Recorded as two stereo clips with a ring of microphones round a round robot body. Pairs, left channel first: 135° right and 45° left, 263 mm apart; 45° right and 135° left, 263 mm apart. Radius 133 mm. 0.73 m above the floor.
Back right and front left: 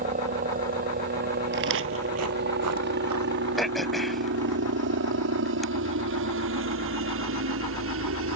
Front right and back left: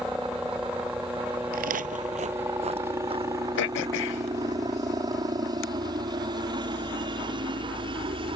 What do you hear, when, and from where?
0.0 s a helicopter: 50° left; by 8.4 s 65° left
1.5 s footsteps: 85° left; by 4.6 s 60° left
3.6 s throat clearing: 45° right